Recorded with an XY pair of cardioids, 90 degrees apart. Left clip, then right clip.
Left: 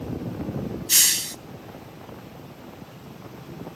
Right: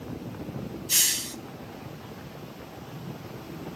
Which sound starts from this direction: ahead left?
A hiss, at 0.9 s.